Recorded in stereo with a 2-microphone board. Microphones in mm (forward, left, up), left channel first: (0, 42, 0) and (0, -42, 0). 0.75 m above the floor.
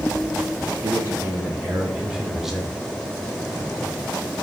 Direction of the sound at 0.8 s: 30° right (ahead or behind).